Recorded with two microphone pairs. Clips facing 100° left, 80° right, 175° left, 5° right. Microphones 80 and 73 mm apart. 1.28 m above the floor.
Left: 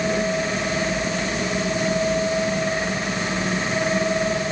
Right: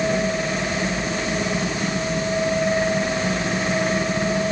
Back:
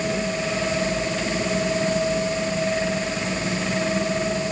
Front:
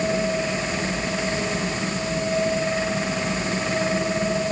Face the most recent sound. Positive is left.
No sound to turn to.